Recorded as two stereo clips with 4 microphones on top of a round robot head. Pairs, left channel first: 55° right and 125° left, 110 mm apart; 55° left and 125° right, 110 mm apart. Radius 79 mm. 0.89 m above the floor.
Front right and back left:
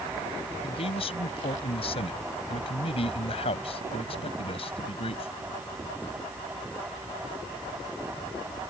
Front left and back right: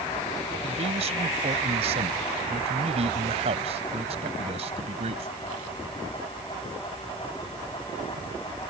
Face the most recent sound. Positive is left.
turn(degrees=-95)